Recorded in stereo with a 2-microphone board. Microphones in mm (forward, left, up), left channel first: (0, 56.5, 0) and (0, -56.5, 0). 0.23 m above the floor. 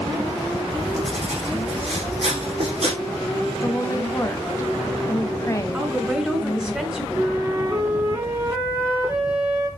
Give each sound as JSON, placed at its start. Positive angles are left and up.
{"t": 0.7, "sound": "writing", "side_deg": -60, "distance_m": 6.0}
{"t": 3.6, "sound": "a woman speaking", "side_deg": 25, "distance_m": 1.7}
{"t": 5.7, "sound": "a woman speaking", "side_deg": -5, "distance_m": 3.0}
{"t": 7.1, "sound": "a flute", "side_deg": -20, "distance_m": 3.0}